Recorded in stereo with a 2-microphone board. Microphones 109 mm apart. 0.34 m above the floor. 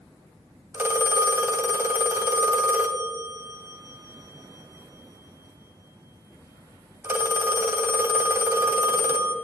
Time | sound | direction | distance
0.7 | a phone ringing | 20° right (ahead or behind) | 1.4 m